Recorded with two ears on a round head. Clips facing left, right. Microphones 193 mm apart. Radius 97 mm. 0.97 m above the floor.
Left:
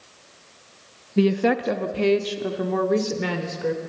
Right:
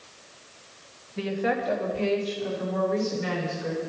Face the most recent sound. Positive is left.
turn(degrees=75)  # may be behind; listen again after turning